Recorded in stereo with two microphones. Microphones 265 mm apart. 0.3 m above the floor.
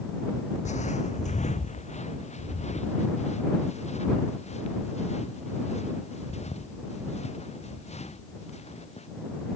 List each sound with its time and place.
0.7 s footsteps: 25° left (ahead or behind)